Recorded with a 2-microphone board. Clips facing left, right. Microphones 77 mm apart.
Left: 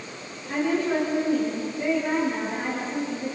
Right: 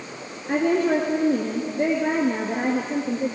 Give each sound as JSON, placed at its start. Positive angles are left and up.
{"t": 0.5, "sound": "a woman speaking", "side_deg": -60, "distance_m": 2.5}